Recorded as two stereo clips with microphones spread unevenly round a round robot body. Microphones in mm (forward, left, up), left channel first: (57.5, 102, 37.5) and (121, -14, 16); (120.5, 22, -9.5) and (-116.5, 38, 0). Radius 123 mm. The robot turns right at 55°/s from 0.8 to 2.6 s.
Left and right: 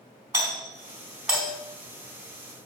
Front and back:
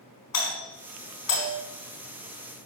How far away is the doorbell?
About 4.5 m.